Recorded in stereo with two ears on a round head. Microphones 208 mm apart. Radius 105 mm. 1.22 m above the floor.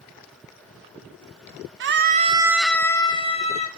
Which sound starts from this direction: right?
A scream, at 1.8 s.